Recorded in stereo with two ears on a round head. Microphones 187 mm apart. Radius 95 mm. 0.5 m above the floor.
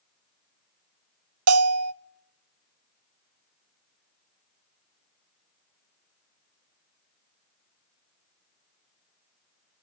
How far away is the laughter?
No laughter in this recording.